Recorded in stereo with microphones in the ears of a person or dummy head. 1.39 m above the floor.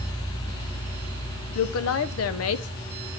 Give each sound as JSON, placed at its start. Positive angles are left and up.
{"t": 1.6, "sound": "a woman speaking", "side_deg": 75, "distance_m": 0.6}